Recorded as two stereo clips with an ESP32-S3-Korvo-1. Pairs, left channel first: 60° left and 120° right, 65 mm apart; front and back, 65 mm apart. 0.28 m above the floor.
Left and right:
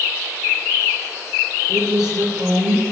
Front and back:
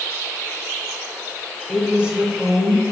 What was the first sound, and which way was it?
A woman speaking, 105° right.